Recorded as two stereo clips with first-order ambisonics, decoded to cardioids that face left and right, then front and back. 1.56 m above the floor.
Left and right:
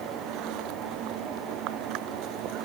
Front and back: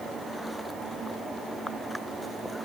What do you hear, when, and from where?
Only background noise.